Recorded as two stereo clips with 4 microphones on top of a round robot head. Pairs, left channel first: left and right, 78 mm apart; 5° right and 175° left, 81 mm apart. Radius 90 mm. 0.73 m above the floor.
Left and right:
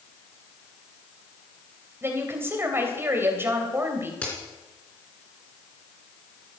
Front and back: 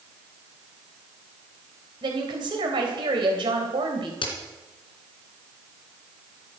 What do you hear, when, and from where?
2.0 s a woman speaking: 150° right, 3 m
4.2 s a crack: 15° left, 3.5 m